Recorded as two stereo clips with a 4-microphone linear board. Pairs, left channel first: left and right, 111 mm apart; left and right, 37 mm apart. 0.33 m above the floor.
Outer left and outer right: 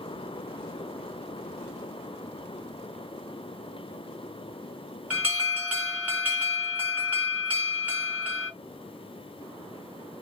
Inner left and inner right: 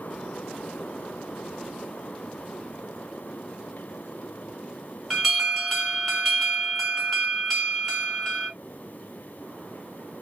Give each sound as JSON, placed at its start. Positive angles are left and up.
{"t": 5.1, "sound": "an alarm", "side_deg": -10, "distance_m": 1.8}